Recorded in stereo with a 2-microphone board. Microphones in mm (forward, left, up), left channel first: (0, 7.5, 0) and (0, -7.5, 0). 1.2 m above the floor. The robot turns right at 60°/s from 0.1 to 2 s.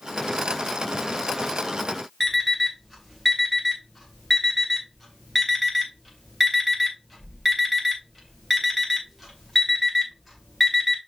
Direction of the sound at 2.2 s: 5° right (ahead or behind).